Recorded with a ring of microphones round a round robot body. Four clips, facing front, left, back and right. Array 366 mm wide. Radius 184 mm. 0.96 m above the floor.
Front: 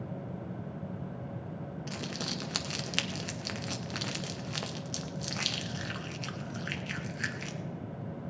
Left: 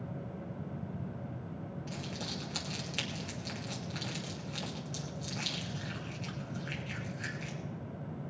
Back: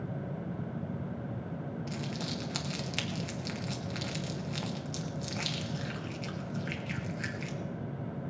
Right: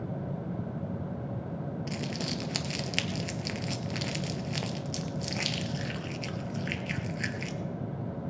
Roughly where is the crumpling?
Ahead right.